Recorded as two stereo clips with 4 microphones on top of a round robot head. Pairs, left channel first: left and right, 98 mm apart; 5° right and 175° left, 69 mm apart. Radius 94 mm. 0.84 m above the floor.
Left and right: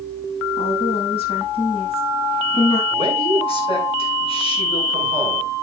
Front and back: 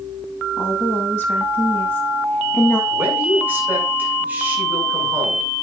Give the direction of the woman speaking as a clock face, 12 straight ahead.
10 o'clock.